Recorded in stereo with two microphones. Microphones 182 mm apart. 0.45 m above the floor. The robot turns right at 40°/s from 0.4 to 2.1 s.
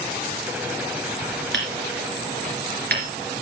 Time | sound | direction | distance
1.5 | hammering | 85° right | 2.5 m